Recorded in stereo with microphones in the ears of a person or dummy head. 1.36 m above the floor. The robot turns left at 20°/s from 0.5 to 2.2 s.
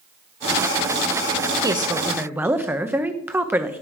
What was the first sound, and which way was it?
A woman speaking, 15° right (ahead or behind).